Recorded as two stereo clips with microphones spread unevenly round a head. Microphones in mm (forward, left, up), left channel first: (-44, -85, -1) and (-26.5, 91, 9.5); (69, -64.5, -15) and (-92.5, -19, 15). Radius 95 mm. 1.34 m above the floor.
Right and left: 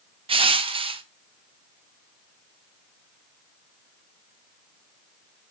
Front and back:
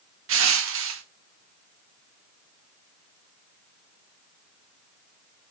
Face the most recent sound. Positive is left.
turn(degrees=145)